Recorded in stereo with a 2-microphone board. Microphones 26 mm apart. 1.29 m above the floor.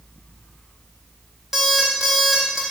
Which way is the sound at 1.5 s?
10° right (ahead or behind).